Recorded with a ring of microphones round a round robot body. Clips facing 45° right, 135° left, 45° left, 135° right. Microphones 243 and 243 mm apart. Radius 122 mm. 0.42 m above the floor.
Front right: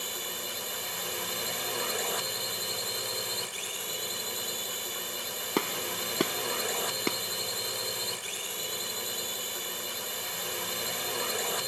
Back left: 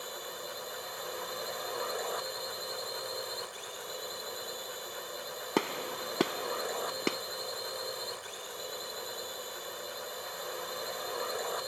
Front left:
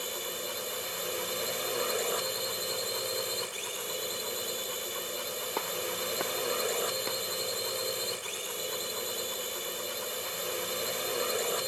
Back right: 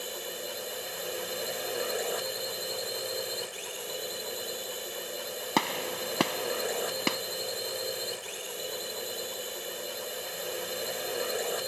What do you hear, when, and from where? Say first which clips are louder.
0.0 s a drone: front right 2 dB, even; 35° right
5.6 s a gunshot: even, back right 5 dB; 130° right